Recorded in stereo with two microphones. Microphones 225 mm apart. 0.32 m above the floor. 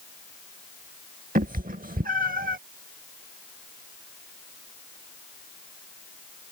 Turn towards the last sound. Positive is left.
turn(degrees=-40)  # may be behind; listen again after turning